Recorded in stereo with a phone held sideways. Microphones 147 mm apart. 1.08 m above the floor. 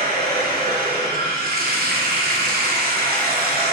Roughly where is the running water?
Right.